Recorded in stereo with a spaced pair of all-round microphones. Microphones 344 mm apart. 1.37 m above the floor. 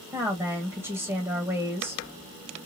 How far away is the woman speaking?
About 1.0 m.